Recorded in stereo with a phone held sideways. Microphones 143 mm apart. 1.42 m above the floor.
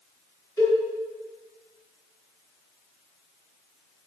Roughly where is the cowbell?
Left.